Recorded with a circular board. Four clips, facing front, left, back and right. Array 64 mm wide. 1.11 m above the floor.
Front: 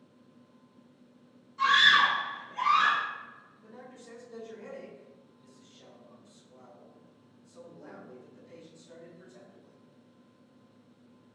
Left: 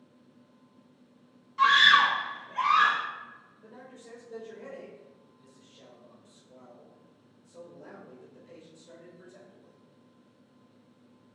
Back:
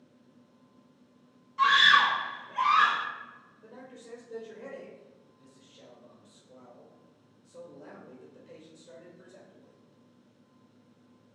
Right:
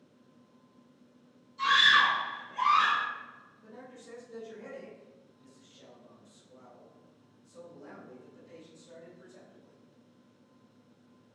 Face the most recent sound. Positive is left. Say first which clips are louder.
# even, back 1 dB
turn(degrees=155)